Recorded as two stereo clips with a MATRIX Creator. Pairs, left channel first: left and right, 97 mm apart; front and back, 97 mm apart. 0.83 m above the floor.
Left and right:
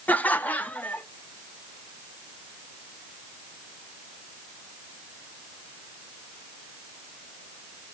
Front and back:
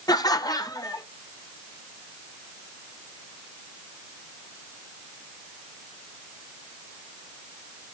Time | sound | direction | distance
0.1 | laughter | 20° left | 0.6 m